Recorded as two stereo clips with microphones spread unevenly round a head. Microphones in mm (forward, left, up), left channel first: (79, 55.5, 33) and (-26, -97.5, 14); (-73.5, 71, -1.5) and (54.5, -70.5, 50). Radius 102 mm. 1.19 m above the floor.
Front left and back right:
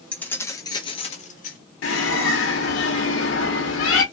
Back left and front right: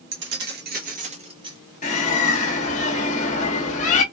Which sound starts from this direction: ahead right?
Keys jangling, at 0.1 s.